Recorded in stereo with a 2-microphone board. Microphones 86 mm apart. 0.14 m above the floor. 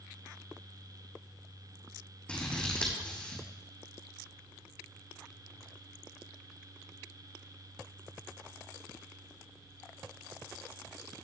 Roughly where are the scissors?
Centre.